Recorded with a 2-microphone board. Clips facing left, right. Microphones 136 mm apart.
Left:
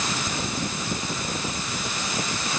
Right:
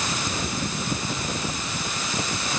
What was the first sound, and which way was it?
Only background noise.